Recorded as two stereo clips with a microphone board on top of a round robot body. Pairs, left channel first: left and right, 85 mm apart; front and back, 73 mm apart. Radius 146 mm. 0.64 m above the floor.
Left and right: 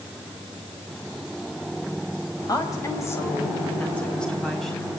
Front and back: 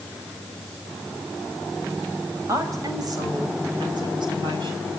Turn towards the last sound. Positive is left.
turn(degrees=180)